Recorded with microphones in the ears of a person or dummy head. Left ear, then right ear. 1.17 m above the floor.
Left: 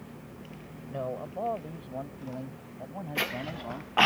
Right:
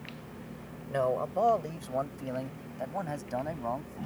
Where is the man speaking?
70° right (ahead or behind); by 4.0 s 65° right (ahead or behind).